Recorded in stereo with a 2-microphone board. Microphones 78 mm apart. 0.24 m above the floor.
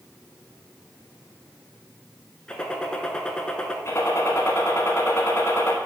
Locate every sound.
2.5 s a gunshot: 10° left (ahead or behind), 0.7 m
3.9 s a gunshot: 35° left (ahead or behind), 1.3 m